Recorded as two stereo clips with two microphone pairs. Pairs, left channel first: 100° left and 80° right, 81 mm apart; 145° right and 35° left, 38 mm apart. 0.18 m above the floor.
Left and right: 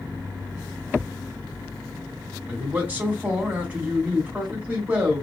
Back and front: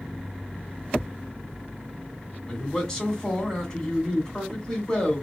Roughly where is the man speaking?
Right.